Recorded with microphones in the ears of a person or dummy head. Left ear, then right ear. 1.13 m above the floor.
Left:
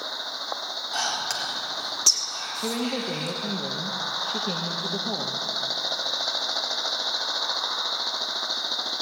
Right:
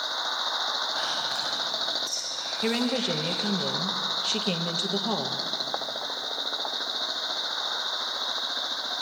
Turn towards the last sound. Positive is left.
turn(degrees=-45)  # may be behind; listen again after turning